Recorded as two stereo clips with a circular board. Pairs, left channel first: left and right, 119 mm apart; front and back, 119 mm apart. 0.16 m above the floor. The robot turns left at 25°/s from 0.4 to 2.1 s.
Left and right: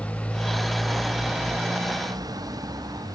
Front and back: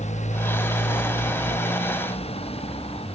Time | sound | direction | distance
0.0 | a motorcycle | 10° left | ?